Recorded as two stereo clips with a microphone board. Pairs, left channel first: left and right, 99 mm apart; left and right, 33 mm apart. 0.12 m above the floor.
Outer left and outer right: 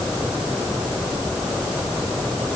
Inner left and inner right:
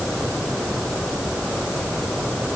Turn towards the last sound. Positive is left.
No sound to turn to.